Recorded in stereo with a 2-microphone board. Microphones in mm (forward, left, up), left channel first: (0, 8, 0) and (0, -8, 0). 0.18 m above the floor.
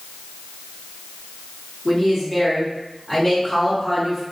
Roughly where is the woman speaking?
Centre.